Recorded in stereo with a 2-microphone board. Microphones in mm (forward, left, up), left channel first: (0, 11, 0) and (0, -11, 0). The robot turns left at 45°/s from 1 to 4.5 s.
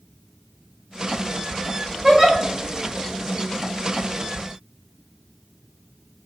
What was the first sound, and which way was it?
A giggle, 25° right (ahead or behind).